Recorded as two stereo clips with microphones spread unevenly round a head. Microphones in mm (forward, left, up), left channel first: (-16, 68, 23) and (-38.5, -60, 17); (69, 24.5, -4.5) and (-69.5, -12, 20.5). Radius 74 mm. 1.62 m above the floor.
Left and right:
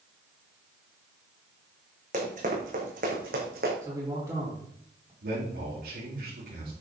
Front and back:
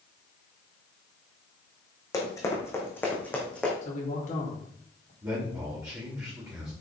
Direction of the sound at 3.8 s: 30° right.